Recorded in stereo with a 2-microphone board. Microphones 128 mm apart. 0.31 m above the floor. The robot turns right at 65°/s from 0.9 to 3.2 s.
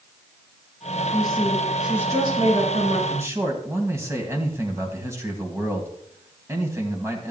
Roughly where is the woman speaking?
Behind left.